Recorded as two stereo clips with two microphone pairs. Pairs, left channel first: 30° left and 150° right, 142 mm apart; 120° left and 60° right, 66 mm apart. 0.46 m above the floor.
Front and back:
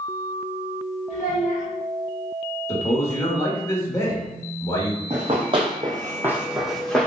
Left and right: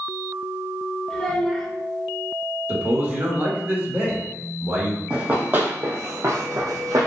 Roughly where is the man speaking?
Ahead right.